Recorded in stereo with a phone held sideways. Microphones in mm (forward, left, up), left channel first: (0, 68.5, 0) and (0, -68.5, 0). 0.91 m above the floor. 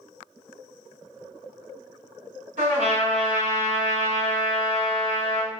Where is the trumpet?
65° right (ahead or behind), 1.6 m.